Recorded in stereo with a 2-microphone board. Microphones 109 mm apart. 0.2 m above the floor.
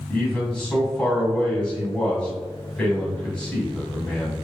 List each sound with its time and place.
0.1 s a man speaking: 10° left (ahead or behind), 1.7 m